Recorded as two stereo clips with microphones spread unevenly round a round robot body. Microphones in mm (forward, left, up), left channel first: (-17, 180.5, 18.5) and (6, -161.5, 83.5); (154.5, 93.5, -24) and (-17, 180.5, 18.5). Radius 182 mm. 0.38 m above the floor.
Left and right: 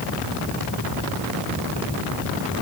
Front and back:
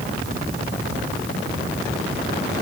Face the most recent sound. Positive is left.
No sound to turn to.